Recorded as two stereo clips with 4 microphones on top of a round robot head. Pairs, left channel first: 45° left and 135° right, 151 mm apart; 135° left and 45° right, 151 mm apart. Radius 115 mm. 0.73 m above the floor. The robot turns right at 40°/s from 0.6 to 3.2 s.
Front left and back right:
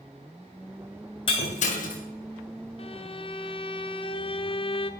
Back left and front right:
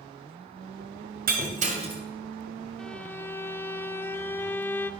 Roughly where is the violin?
Ahead left.